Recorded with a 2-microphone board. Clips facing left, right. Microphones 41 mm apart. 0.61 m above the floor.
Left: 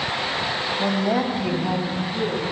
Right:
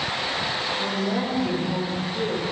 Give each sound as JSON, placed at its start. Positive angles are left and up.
{"t": 0.8, "sound": "a woman speaking", "side_deg": 65, "distance_m": 2.5}